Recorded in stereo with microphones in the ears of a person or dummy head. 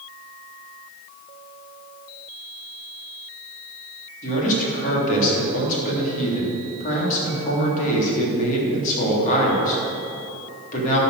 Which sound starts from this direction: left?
A man speaking, at 4.2 s.